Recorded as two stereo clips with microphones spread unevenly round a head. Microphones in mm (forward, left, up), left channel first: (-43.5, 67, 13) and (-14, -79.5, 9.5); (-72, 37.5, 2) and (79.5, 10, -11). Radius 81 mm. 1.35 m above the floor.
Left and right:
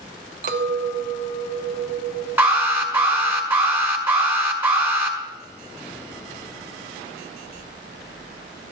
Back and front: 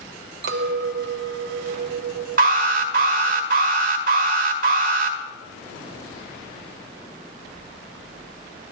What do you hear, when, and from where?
0.4 s a clink: 40° right, 0.6 m
2.4 s an alarm: 5° right, 1.4 m